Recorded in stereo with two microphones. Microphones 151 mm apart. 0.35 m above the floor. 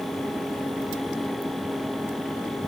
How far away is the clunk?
No clunk in this recording.